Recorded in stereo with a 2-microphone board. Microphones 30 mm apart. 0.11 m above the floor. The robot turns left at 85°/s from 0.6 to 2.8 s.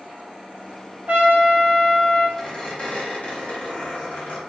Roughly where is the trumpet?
Right.